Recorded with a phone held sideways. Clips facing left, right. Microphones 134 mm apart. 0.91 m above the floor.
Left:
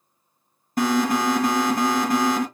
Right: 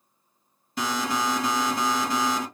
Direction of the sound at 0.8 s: 45° left (ahead or behind).